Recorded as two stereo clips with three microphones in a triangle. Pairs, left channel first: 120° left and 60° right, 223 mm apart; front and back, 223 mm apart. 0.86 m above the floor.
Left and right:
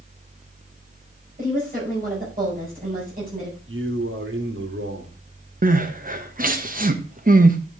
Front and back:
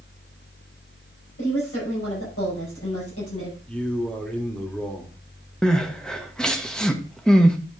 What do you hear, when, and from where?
1.4 s a woman speaking: 10° right, 5 m
3.7 s a man speaking: 85° right, 1.8 m
5.6 s crying: 85° right, 1.0 m